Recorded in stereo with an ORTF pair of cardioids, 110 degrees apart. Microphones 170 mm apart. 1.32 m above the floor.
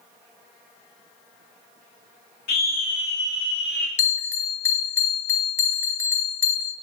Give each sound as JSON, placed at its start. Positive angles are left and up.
{"t": 2.5, "sound": "a scream", "azimuth_deg": 70, "distance_m": 1.3}
{"t": 4.0, "sound": "a bell", "azimuth_deg": 15, "distance_m": 0.8}